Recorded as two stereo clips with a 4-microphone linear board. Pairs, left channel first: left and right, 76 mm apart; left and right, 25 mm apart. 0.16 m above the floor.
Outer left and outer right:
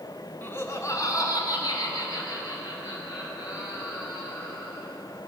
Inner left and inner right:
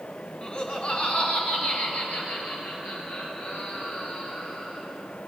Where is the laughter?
30° left (ahead or behind), 1.5 m; by 4.8 s 80° left, 6 m.